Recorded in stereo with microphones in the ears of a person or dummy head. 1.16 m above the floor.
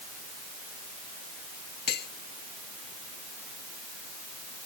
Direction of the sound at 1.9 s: 60° left (ahead or behind).